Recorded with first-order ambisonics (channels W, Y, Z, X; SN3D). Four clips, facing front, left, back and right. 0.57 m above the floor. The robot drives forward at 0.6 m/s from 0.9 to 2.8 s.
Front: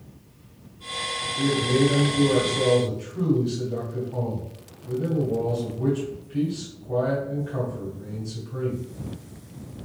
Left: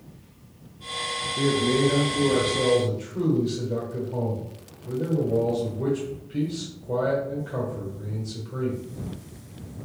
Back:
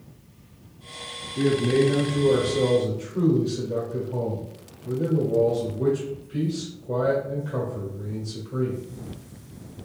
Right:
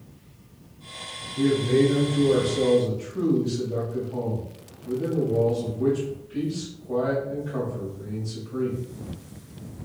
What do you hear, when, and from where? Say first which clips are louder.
1.4 s a man speaking: right 2 dB, back 2 dB; 150° left, 0.8 m; by 8.8 s 170° left, 1.5 m